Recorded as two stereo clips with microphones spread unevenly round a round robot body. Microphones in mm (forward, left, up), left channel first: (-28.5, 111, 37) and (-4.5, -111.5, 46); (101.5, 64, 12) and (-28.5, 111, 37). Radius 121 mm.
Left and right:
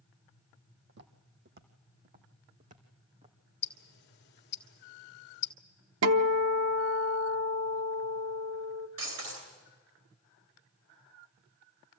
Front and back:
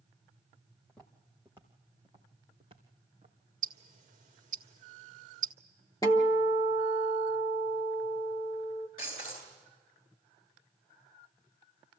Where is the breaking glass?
90° right, 8.5 m.